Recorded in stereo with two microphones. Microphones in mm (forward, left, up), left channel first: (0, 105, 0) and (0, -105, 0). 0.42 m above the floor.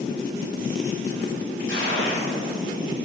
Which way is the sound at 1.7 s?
70° right (ahead or behind).